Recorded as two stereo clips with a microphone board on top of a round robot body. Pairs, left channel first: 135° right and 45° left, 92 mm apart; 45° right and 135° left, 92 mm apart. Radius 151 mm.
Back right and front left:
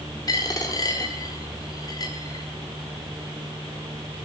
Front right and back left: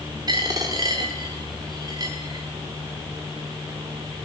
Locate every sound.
0.3 s a dropped coin: straight behind, 0.6 m